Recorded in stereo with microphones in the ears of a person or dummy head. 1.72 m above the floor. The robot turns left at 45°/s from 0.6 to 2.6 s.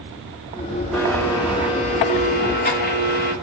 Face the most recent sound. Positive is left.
turn(degrees=95)